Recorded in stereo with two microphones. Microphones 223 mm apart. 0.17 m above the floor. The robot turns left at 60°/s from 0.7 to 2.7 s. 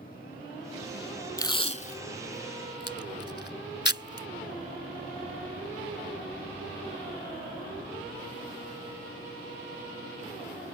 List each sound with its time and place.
1.4 s tape being pulled: 15° left (ahead or behind); by 4.3 s 50° left (ahead or behind)